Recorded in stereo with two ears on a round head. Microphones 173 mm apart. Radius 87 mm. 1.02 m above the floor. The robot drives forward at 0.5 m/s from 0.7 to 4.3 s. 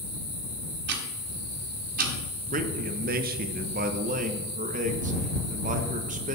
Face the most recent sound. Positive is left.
turn(degrees=-40)  # may be behind; listen again after turning